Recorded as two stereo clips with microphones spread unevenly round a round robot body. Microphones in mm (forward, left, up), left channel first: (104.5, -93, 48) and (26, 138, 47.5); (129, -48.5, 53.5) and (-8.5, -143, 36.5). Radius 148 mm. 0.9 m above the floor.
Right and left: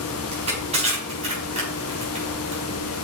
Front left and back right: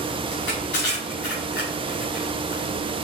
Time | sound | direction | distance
0.3 | crushing | 45° left | 4.5 m